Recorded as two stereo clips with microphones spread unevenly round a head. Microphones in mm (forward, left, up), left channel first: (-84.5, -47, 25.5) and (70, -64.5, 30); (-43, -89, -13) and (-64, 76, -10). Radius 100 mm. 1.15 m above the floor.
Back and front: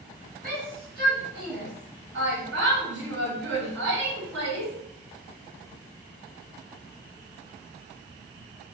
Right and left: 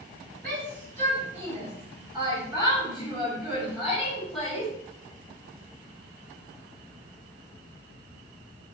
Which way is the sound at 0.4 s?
45° left.